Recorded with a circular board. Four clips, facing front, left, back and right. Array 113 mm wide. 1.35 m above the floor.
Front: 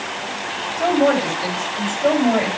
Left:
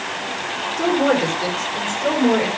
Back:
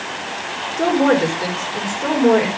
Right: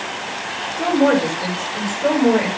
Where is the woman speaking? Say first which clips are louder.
Right 2 dB, back 1 dB; 175° left, 5 m.